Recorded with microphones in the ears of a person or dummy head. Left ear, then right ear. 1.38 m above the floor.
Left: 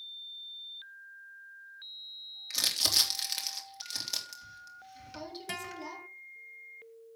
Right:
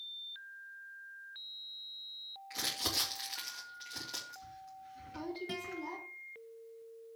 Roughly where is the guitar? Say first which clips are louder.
Left 2 dB; left.